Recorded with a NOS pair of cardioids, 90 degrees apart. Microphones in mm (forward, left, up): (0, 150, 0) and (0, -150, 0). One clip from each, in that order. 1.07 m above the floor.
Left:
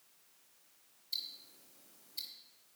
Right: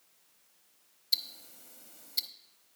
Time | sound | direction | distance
1.1 | ticking | 70° right | 1.0 m